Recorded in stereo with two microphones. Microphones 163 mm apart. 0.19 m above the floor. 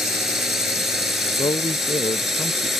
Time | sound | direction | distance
0.0 | a drone | centre (ahead or behind) | ?
1.4 | a man speaking | 30° left (ahead or behind) | ?